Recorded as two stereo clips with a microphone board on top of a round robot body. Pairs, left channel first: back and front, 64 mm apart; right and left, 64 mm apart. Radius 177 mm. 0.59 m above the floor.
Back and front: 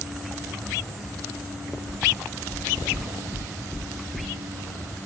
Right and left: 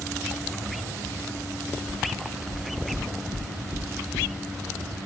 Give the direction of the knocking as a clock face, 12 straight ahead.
9 o'clock.